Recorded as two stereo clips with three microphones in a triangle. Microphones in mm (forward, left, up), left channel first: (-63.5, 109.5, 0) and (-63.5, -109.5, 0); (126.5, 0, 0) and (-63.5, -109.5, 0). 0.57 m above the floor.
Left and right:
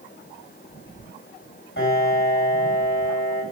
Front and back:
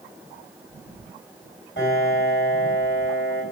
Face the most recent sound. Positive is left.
turn(degrees=60)